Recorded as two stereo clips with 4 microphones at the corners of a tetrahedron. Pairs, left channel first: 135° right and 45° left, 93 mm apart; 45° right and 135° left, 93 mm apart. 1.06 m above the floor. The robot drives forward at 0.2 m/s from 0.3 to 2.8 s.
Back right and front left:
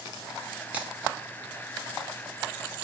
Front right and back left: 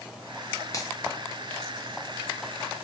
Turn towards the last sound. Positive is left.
turn(degrees=-90)